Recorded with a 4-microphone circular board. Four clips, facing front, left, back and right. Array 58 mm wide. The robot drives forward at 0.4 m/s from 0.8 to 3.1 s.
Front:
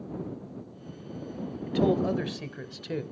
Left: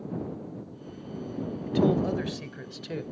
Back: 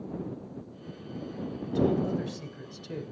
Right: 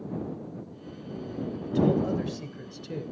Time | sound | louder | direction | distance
1.7 | a man speaking | even, front 2 dB | 20° left | 1.7 m